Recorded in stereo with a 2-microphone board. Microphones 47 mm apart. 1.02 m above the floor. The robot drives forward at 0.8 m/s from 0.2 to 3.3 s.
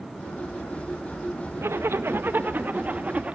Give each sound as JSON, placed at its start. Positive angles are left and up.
{"t": 1.6, "sound": "a zipper", "side_deg": -65, "distance_m": 1.0}